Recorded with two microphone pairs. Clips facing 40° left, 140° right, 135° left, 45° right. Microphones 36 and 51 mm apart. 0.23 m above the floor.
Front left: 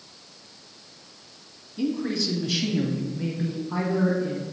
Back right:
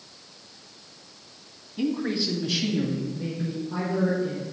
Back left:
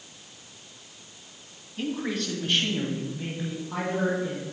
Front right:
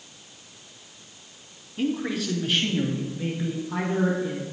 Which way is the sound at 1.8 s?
120° right.